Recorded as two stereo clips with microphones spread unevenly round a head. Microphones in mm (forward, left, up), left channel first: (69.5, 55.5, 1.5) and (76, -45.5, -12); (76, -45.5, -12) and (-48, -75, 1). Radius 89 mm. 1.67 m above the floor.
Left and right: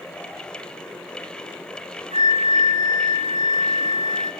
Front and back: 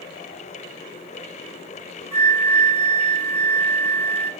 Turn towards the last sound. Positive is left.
turn(degrees=-100)